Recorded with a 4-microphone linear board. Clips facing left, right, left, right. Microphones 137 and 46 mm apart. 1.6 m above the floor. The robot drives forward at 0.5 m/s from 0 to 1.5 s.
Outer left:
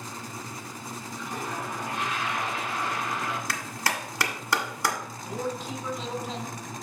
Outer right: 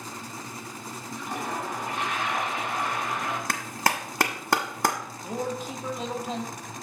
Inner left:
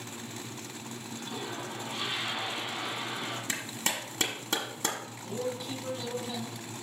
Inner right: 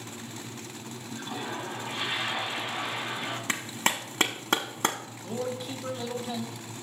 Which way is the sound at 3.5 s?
50° right (ahead or behind).